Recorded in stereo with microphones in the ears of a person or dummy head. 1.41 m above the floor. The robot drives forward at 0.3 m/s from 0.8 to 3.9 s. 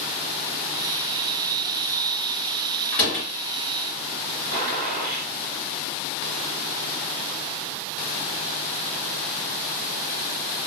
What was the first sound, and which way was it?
A door slam, 5° left (ahead or behind).